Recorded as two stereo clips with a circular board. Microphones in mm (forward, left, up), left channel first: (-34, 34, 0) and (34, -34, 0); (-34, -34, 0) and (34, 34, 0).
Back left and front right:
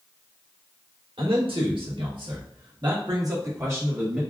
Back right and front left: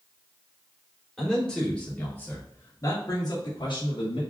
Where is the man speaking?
50° right, 1.6 m; by 4.2 s 120° right, 1.3 m.